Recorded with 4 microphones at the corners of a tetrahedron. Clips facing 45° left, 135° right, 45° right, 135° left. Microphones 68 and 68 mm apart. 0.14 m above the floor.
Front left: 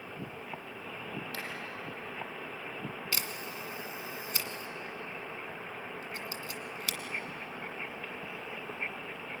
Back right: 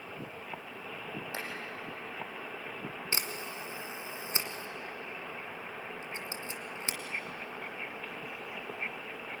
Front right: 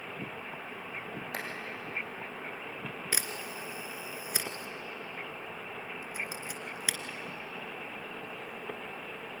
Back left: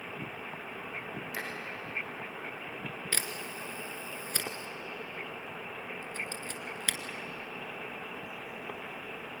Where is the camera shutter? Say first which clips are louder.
Back right 1 dB, front right 1 dB; 115° right, 1.5 m.